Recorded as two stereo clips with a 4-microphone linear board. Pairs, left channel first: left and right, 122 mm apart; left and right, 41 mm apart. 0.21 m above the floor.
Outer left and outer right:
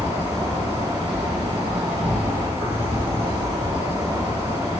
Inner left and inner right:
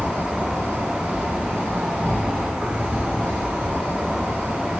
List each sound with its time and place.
0.0 s an insect: 50° right (ahead or behind), 1.5 m